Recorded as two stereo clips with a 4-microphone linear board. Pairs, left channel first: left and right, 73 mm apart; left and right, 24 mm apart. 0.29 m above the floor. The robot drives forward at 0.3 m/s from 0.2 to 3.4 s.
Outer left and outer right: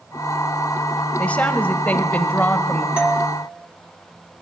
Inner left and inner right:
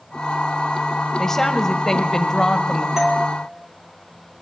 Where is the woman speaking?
20° left (ahead or behind), 1.1 m.